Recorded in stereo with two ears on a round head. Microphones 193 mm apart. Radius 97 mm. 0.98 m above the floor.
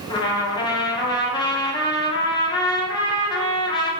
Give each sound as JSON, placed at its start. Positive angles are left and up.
{"t": 0.1, "sound": "a trumpet", "side_deg": 20, "distance_m": 0.5}